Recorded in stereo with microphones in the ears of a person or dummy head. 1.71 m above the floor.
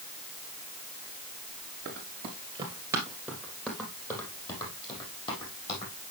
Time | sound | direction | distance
1.9 | running footsteps | 45° right (ahead or behind) | 2.5 m